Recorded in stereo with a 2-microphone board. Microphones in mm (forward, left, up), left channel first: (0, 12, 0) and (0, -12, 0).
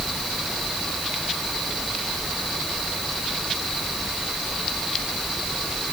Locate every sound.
Only background noise.